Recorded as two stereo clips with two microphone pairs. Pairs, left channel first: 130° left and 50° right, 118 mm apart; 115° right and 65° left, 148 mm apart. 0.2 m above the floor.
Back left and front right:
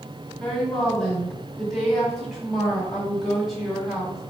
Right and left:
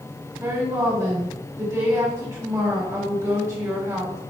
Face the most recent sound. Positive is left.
turn(degrees=40)